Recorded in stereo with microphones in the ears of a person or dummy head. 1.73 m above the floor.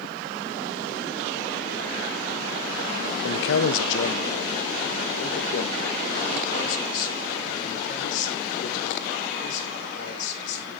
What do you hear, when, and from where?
3.2 s a man speaking: 75° left (ahead or behind), 0.8 m; by 10.7 s 45° left (ahead or behind), 6.5 m